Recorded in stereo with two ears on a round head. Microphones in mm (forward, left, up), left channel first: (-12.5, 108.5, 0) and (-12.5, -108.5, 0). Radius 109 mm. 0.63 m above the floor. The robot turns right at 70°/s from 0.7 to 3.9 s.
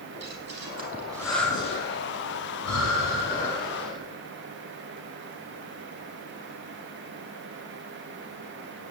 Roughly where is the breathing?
Right.